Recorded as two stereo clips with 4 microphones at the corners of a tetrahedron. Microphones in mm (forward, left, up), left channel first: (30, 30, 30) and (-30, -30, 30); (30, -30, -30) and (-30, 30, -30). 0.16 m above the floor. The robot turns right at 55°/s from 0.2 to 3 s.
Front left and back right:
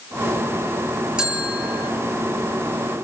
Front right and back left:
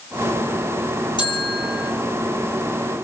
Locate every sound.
1.2 s a bell: 55° right, 4.5 m; by 1.9 s 15° right, 4.5 m